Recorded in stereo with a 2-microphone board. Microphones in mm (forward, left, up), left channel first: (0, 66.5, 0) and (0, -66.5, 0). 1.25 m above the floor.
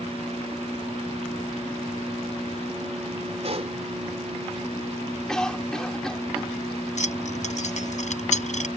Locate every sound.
3.4 s a pop: 55° right (ahead or behind)
5.3 s a cough: 5° left (ahead or behind)
7.0 s keys jangling: 65° left (ahead or behind)